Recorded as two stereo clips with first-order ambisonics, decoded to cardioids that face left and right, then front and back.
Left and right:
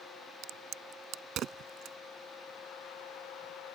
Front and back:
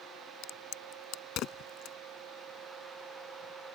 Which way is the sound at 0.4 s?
40° right.